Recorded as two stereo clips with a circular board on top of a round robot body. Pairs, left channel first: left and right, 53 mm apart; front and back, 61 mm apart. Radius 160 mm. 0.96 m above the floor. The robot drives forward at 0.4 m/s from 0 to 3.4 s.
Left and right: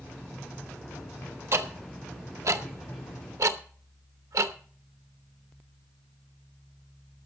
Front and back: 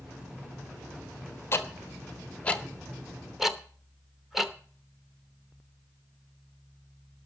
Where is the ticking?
55° right, 1.2 m; by 4.5 s 95° right, 1.0 m.